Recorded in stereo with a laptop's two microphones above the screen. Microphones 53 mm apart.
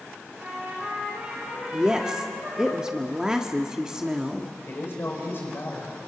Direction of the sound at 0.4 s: 25° right (ahead or behind).